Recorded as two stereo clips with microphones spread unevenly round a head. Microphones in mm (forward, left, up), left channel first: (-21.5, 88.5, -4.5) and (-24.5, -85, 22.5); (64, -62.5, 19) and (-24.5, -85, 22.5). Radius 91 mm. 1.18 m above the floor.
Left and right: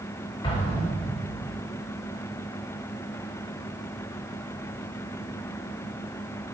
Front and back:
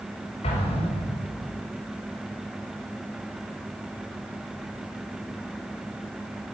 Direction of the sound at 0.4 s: 25° left.